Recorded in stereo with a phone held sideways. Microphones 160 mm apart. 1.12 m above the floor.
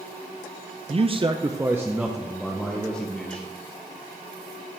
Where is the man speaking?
40° right (ahead or behind), 0.5 m; by 3.5 s 10° left (ahead or behind), 1.5 m.